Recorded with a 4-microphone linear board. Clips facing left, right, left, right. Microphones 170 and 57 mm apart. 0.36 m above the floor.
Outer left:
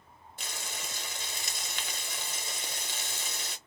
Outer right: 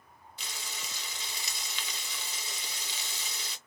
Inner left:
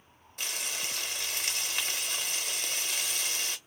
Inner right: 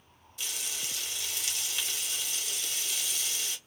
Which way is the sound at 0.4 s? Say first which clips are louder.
Outer left 3 dB, inner left 3 dB; 50° left (ahead or behind).